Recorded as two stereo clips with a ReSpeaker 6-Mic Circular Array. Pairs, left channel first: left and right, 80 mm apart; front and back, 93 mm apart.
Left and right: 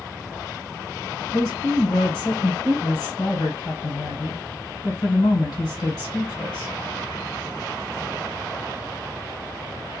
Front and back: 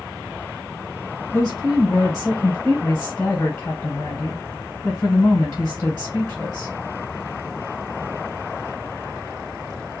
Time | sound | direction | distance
1.3 | a woman speaking | 65° left | 1.2 m